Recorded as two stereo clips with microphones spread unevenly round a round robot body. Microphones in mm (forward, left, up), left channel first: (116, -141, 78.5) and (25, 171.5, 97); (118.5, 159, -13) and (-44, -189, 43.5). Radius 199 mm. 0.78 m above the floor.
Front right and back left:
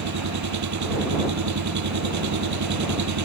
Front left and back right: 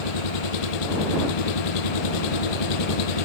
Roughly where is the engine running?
Ahead left.